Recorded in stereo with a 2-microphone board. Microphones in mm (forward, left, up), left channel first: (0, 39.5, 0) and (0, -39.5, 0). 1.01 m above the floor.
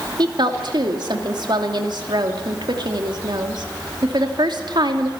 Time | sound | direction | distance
0.2 | a woman speaking | 70° right (ahead or behind) | 2.5 m